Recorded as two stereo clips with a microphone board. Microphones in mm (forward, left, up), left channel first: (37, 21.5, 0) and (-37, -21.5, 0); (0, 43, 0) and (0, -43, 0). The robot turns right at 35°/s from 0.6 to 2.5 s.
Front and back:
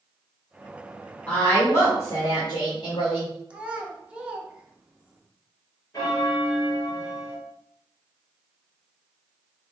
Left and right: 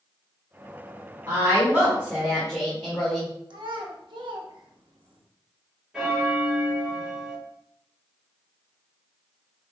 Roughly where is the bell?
Ahead.